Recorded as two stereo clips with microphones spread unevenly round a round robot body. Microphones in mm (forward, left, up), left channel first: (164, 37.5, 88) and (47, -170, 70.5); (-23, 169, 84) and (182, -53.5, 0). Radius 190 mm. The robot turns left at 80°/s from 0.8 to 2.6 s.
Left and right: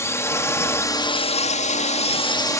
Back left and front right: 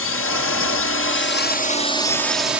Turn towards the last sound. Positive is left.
turn(degrees=-10)